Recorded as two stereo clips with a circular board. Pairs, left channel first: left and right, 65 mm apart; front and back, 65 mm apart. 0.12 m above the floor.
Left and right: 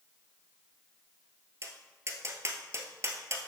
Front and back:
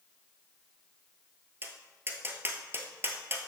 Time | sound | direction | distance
1.6 | tapping | 130° right | 1.1 m